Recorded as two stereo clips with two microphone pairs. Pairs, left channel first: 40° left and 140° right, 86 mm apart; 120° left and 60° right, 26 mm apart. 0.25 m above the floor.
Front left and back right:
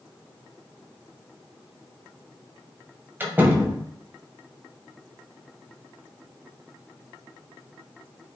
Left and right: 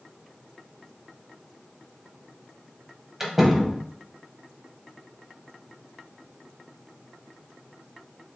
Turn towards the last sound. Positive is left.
turn(degrees=-135)